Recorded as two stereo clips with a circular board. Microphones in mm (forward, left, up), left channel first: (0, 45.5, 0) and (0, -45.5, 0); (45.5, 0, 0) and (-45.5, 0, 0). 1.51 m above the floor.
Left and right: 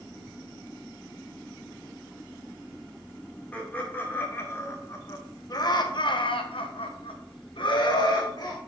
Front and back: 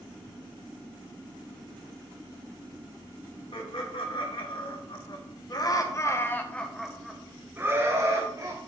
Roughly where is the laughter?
Ahead.